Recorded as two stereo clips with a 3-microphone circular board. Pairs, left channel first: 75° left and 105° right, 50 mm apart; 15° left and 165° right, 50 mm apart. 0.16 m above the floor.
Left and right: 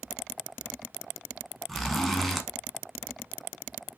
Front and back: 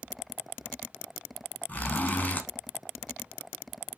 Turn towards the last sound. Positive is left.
turn(degrees=-5)